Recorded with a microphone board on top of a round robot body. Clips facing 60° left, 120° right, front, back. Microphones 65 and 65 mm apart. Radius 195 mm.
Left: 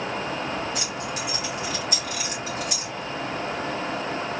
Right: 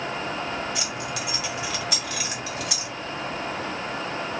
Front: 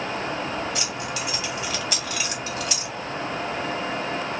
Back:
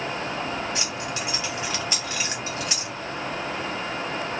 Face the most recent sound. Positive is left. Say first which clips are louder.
# even, front 1 dB
turn(degrees=-115)